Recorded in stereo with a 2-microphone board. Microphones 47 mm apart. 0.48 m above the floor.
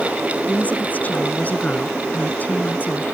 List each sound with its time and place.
0.5 s a woman speaking: 35° left (ahead or behind)